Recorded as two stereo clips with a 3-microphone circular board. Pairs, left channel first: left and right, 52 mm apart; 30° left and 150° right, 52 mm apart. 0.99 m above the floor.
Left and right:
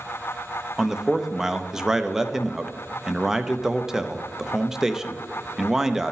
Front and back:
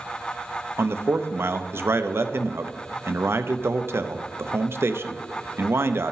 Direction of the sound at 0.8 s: 170° right.